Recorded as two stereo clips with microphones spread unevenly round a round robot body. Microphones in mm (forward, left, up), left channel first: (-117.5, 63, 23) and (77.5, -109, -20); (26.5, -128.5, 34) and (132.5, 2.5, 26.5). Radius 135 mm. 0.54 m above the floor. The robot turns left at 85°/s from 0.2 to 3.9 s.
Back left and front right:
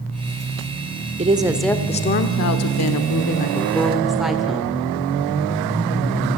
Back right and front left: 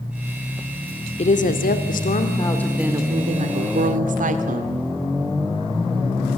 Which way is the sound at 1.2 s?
90° right.